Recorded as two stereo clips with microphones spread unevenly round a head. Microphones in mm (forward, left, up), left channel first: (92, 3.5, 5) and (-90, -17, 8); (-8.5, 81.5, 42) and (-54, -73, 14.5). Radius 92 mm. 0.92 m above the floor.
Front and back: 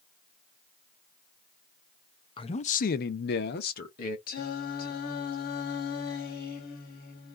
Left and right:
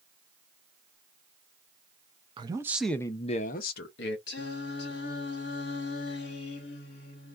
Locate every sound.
2.4 s a man speaking: 55° right, 0.6 m; by 4.2 s 55° left, 0.8 m
4.3 s singing: 50° left, 0.8 m